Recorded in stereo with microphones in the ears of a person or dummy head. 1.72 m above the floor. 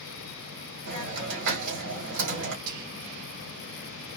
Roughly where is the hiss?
Right.